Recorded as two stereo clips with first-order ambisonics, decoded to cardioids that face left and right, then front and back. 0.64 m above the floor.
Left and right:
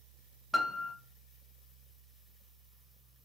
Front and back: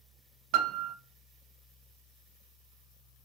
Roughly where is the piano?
Behind.